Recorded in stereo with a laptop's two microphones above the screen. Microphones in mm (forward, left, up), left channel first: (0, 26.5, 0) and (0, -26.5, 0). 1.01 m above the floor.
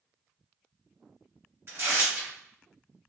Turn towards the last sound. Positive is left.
turn(degrees=-45)  # may be behind; listen again after turning